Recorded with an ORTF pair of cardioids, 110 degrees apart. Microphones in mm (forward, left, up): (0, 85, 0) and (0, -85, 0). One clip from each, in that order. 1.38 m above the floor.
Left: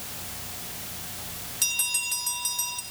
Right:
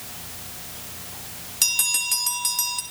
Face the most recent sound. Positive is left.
turn(degrees=-40)